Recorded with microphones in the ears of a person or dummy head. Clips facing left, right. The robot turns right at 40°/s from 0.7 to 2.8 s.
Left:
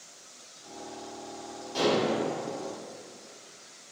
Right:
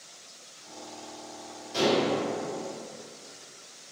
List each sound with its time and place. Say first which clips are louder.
1.7 s dishes clattering: right 1 dB; 85° right, 1.9 m; by 2.1 s 75° right (ahead or behind), 1.9 m